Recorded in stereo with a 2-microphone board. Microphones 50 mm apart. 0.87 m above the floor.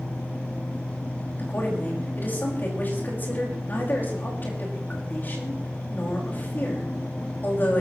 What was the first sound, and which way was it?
A woman speaking, 40° left (ahead or behind).